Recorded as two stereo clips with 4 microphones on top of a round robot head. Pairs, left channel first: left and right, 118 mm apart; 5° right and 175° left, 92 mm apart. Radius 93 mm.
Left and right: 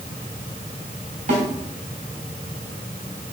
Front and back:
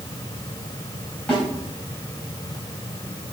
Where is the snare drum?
80° right, 3.5 m.